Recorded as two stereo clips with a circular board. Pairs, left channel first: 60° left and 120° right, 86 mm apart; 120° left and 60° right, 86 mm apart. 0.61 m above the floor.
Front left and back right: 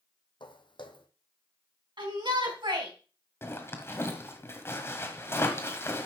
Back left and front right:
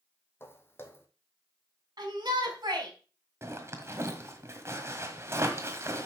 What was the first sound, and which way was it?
Footsteps, 60° left.